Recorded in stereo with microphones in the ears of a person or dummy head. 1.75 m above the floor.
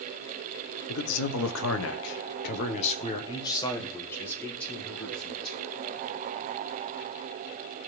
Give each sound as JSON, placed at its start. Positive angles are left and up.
{"t": 0.9, "sound": "a man speaking", "side_deg": 70, "distance_m": 1.6}